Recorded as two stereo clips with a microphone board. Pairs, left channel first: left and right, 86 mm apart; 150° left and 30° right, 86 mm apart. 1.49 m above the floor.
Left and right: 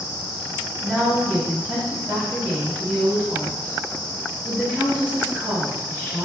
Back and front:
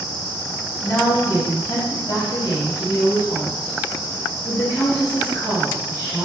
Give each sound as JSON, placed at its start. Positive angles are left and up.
{"t": 0.8, "sound": "a woman speaking", "azimuth_deg": -170, "distance_m": 1.7}